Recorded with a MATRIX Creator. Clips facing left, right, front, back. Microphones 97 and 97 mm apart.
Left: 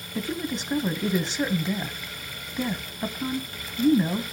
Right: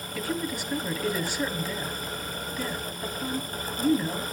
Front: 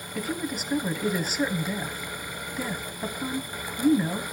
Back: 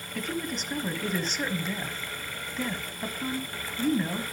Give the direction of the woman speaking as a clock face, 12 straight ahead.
10 o'clock.